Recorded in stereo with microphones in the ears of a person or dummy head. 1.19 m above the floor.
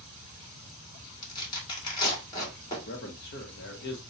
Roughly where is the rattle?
I don't hear a rattle.